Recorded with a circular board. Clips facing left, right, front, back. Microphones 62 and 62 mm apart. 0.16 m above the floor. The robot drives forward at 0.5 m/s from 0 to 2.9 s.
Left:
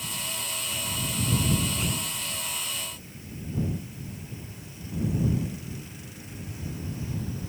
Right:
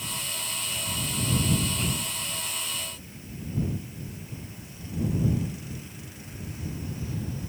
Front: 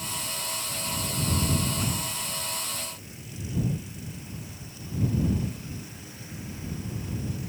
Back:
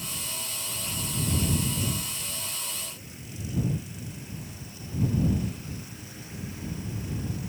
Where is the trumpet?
I don't hear a trumpet.